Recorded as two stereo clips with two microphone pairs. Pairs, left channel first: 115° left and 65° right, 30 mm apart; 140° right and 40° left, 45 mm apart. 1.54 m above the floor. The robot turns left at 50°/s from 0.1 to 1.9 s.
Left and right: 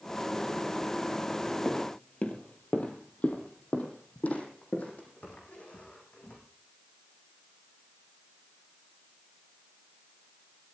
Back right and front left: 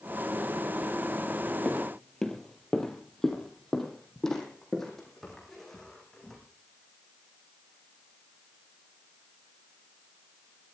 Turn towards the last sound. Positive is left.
turn(degrees=140)